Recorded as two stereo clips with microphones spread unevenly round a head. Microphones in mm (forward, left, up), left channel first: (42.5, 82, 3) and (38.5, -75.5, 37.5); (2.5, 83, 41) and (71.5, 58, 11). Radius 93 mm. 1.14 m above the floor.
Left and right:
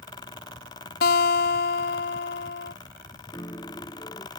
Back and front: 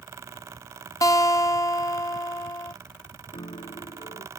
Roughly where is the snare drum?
I don't hear a snare drum.